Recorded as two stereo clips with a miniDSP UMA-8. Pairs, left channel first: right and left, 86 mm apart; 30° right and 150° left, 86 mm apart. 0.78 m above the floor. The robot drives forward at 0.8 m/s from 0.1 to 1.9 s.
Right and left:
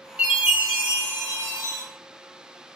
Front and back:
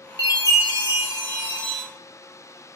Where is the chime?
15° left, 1.7 m; by 1.8 s 60° left, 0.7 m.